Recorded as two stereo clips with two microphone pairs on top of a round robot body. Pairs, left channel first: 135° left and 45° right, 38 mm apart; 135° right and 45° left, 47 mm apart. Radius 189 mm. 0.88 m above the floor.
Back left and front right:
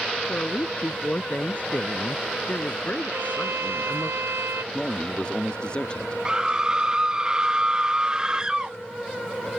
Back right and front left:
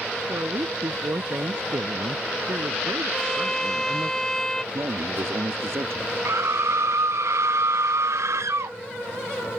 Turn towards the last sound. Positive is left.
turn(degrees=30)